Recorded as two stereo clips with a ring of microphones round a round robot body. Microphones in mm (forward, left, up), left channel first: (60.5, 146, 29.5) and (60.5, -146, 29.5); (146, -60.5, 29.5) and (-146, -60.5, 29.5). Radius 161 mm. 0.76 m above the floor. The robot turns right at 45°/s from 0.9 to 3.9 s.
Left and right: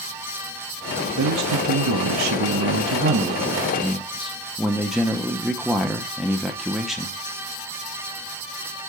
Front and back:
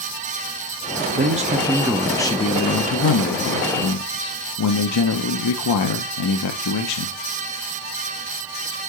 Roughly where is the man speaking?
Behind right.